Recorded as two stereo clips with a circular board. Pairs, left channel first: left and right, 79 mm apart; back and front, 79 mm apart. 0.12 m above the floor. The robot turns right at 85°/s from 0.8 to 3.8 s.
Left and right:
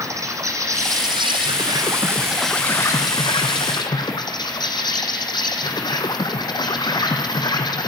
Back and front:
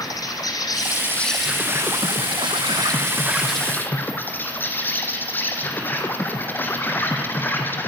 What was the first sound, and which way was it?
An insect, 140° right.